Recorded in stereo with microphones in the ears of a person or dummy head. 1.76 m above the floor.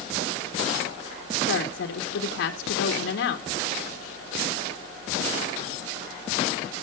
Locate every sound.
1.5 s a woman speaking: 60° left (ahead or behind), 1.5 m